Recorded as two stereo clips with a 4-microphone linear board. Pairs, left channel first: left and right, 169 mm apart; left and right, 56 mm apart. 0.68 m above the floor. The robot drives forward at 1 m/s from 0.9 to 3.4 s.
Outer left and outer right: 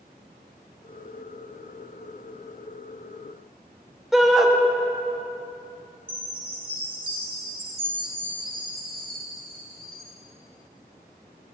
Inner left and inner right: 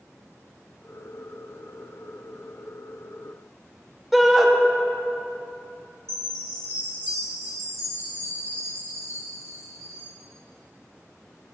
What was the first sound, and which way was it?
A shout, centre (ahead or behind).